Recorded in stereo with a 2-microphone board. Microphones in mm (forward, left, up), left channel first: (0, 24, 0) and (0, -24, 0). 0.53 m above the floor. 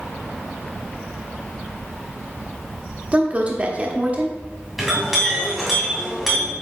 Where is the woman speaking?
30° right (ahead or behind), 1.0 m.